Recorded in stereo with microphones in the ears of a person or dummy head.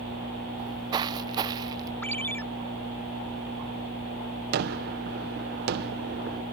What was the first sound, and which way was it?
Footsteps, 20° right (ahead or behind).